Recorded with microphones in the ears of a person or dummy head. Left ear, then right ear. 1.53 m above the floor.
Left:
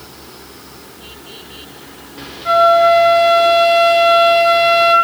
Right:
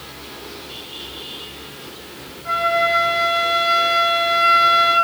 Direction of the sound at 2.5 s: 30° left (ahead or behind).